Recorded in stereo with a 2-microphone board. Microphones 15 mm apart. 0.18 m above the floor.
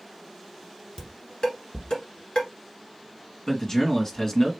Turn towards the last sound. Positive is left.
turn(degrees=30)  # may be behind; listen again after turning